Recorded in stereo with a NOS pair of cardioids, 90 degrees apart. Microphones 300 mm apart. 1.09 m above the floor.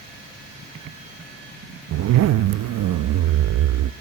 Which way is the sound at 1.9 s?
65° right.